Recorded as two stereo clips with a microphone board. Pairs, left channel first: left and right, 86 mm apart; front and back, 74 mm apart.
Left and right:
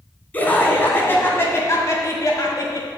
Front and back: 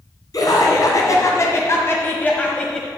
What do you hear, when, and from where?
0.3 s laughter: 20° left, 2.5 m; by 2.9 s 80° left, 1.3 m